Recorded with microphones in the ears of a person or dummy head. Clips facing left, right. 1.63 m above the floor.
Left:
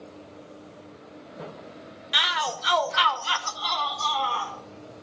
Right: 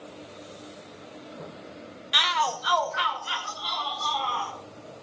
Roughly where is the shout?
Centre.